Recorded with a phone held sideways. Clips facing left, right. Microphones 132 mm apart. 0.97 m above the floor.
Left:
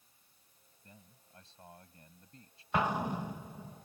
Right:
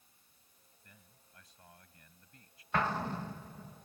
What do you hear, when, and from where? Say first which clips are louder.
0.8 s a man speaking: left 5 dB; 30° left (ahead or behind)
2.7 s an explosion: left 2 dB; 15° left (ahead or behind)